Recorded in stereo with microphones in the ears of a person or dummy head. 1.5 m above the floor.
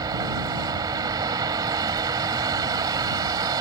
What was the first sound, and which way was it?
A vehicle, 25° right (ahead or behind).